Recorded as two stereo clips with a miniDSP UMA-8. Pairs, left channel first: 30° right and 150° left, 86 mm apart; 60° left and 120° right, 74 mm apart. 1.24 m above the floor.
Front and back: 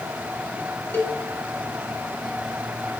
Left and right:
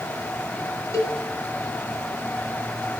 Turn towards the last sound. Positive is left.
turn(degrees=30)